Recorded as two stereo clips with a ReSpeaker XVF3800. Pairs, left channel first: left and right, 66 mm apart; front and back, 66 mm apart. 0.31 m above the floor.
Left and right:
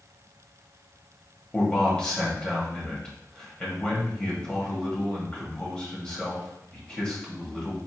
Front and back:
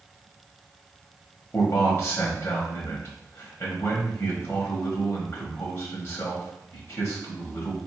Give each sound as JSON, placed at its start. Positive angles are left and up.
{"t": 1.5, "sound": "a man speaking", "azimuth_deg": 25, "distance_m": 1.2}